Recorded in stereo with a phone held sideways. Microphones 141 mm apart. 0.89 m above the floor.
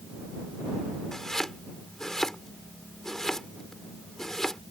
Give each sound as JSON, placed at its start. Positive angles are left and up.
{"t": 1.1, "sound": "chopping", "side_deg": 5}